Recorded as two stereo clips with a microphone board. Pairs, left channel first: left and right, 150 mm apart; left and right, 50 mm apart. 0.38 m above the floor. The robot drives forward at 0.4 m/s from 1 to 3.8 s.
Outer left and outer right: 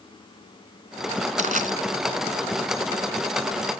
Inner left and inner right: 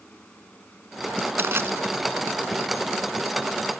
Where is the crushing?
55° right (ahead or behind); by 1.7 s 60° right (ahead or behind).